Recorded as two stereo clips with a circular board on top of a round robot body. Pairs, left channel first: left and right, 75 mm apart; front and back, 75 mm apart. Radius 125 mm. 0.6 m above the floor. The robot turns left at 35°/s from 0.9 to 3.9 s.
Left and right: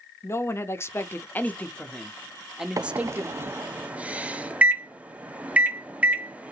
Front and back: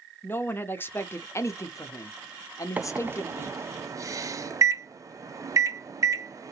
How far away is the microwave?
About 0.7 m.